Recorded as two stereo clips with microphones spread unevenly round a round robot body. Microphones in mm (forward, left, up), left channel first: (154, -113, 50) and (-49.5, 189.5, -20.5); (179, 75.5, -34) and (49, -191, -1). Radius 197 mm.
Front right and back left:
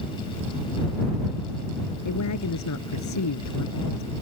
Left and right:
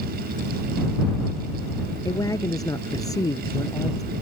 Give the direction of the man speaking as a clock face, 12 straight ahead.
12 o'clock.